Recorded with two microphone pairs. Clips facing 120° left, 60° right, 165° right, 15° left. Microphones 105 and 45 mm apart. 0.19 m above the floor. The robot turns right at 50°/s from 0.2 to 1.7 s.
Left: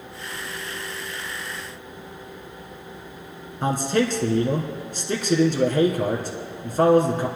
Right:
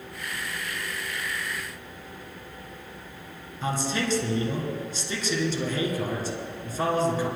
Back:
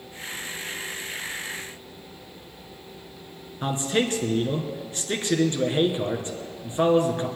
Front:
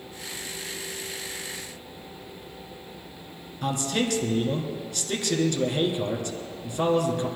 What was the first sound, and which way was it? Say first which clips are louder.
A man speaking: left 6 dB, back 2 dB; 140° left.